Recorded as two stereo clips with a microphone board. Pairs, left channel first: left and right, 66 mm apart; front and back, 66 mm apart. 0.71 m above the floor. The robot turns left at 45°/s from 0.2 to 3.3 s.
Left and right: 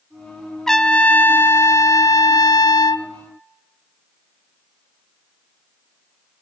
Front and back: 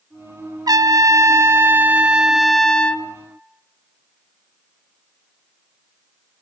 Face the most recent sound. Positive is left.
turn(degrees=55)